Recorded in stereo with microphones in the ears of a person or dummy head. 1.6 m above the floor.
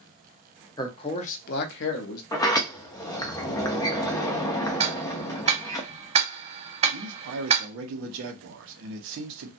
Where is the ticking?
35° right (ahead or behind), 0.5 m.